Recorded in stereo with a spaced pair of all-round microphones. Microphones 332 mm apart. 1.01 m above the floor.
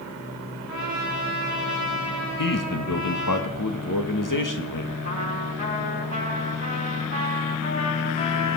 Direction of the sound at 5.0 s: 45° left (ahead or behind).